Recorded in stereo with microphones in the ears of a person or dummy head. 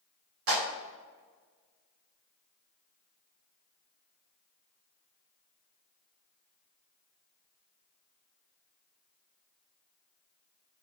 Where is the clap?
85° right, 3.5 m.